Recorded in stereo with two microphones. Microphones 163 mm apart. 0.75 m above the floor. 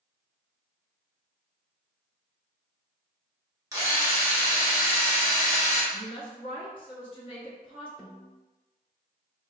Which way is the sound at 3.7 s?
20° right (ahead or behind).